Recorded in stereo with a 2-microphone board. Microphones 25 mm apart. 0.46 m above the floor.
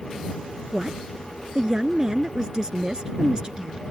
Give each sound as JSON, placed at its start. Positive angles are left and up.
{"t": 0.7, "sound": "a woman speaking", "side_deg": -25}